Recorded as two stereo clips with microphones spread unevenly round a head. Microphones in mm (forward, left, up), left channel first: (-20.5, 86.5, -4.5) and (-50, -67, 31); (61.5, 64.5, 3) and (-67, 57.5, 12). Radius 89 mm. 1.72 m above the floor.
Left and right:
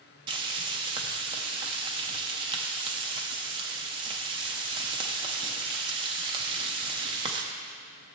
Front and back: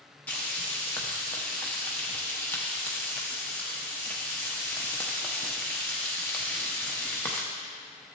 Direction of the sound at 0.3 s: 75° right.